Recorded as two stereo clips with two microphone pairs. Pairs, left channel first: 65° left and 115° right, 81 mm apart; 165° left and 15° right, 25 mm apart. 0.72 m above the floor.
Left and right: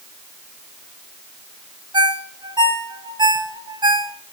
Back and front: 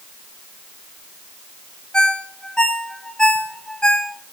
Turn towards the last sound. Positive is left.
turn(degrees=-140)